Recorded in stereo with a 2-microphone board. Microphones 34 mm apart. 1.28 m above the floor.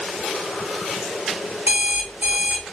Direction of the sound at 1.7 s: 60° right (ahead or behind).